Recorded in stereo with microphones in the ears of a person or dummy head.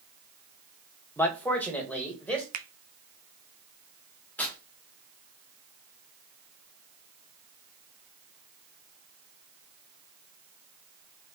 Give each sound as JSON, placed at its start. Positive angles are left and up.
{"t": 1.2, "sound": "a man speaking", "side_deg": 10, "distance_m": 1.2}
{"t": 2.5, "sound": "a finger snap", "side_deg": -50, "distance_m": 0.6}
{"t": 4.4, "sound": "tearing paper", "side_deg": 5, "distance_m": 1.2}